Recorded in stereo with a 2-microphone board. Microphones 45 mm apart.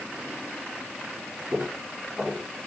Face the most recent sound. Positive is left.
turn(degrees=-35)  # may be behind; listen again after turning